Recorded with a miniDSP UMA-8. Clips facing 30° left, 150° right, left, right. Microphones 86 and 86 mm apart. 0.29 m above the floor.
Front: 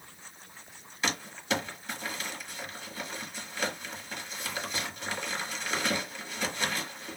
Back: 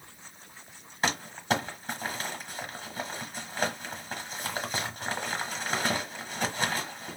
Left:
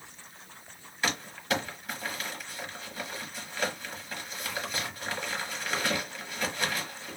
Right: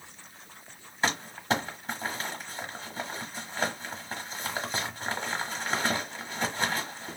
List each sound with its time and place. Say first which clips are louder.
1.0 s crumpling: back 3 dB, right 3 dB; 140° right, 1.1 m